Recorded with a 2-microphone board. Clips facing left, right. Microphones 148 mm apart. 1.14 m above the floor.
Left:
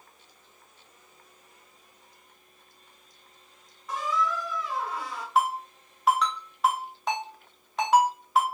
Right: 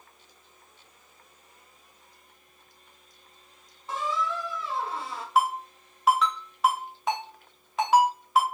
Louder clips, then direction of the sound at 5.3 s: Right 1 dB; centre (ahead or behind).